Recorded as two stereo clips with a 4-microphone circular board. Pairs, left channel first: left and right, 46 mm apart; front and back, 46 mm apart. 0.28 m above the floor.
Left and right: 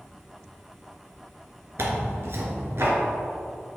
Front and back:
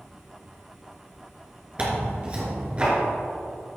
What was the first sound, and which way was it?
Tearing paper, 115° right.